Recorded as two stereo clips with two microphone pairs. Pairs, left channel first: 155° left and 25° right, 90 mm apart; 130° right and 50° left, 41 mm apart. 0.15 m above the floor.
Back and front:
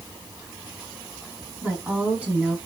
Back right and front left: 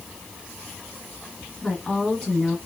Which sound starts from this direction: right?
A woman speaking, at 1.6 s.